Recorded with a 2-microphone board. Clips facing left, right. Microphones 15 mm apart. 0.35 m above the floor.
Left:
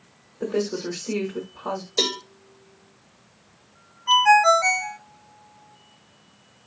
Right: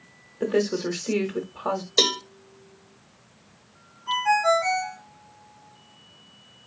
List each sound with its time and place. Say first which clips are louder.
0.4 s a woman speaking: right 2 dB; 45° right (ahead or behind), 1.2 m
2.0 s a cowbell: right 3 dB; 30° right (ahead or behind), 0.7 m
4.1 s a ringtone: left 6 dB; 40° left (ahead or behind), 0.5 m